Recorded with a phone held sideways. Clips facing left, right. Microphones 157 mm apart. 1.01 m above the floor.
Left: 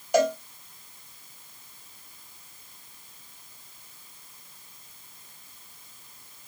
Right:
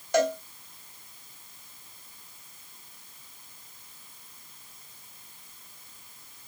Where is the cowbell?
15° left (ahead or behind), 1.7 m.